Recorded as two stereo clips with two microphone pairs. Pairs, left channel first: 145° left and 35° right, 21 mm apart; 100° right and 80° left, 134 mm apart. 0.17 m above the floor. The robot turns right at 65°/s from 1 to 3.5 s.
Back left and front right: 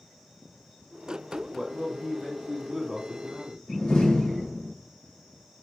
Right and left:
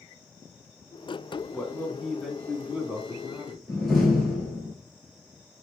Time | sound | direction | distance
1.5 | a man speaking | 55° right | 1.5 m
3.7 | a door slam | 170° left | 2.5 m